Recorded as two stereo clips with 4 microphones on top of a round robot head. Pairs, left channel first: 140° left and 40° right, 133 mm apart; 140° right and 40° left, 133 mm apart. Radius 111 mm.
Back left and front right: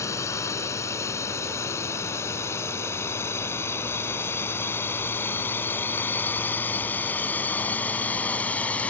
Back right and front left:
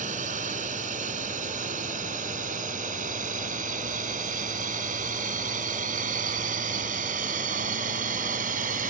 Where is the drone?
70° left; by 8.9 s 60° left.